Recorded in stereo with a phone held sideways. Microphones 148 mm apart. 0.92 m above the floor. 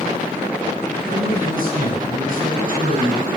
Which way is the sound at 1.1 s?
65° right (ahead or behind).